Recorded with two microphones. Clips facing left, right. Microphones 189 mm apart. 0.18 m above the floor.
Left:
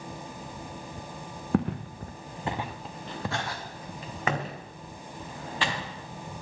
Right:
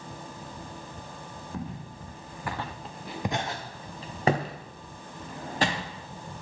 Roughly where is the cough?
I don't hear a cough.